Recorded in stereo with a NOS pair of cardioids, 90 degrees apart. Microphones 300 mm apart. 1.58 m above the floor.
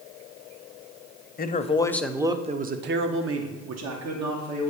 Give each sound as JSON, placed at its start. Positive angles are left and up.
{"t": 1.4, "sound": "a man speaking", "azimuth_deg": 30, "distance_m": 0.9}